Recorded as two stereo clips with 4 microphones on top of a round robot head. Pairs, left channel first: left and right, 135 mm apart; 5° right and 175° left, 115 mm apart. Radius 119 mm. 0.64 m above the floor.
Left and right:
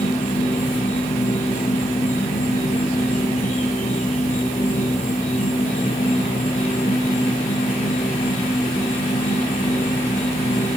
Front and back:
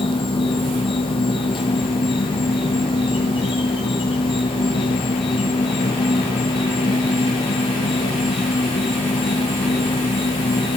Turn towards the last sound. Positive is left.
turn(degrees=40)